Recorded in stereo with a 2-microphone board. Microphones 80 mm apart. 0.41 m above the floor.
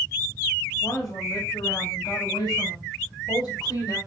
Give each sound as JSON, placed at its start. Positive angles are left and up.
{"t": 0.8, "sound": "a woman speaking", "side_deg": 50, "distance_m": 2.0}